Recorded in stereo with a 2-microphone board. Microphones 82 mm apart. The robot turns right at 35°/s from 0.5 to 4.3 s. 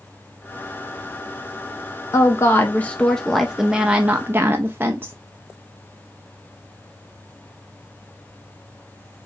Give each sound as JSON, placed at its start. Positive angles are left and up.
{"t": 2.1, "sound": "a woman speaking", "azimuth_deg": 135, "distance_m": 0.6}